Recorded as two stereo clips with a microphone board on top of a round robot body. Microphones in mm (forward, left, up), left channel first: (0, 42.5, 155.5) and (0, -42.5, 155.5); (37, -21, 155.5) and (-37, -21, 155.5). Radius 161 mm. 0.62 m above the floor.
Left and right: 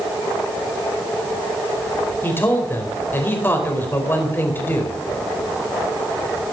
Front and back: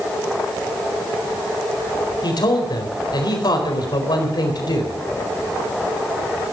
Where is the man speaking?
25° left, 4.5 m.